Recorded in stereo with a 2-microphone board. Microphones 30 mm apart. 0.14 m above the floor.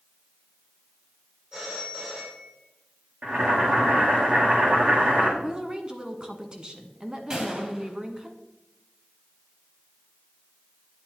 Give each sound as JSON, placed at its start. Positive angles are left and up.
{"t": 1.5, "sound": "a phone ringing", "side_deg": -30, "distance_m": 5.5}
{"t": 3.2, "sound": "boiling", "side_deg": -55, "distance_m": 4.5}
{"t": 5.4, "sound": "a woman speaking", "side_deg": -25, "distance_m": 1.1}
{"t": 7.3, "sound": "a gunshot", "side_deg": -25, "distance_m": 3.0}